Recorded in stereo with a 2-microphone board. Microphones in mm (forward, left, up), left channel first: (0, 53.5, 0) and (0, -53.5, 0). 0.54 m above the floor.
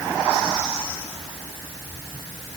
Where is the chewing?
I don't hear chewing.